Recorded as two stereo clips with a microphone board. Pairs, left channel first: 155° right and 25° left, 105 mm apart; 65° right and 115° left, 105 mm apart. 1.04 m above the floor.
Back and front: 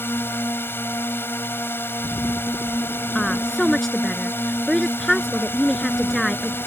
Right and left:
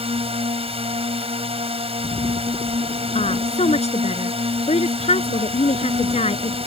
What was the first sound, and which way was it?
A drone, 135° left.